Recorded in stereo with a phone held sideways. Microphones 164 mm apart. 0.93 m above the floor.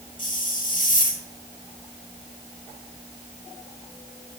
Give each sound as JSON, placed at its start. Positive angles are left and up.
{"t": 0.2, "sound": "a hiss", "side_deg": 50, "distance_m": 1.3}